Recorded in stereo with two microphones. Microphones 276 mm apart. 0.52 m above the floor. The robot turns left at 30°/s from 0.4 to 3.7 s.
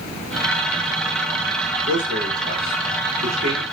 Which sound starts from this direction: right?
A man speaking, at 1.9 s.